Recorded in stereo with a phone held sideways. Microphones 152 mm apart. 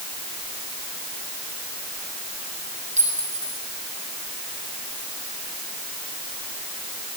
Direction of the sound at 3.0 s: 50° right (ahead or behind).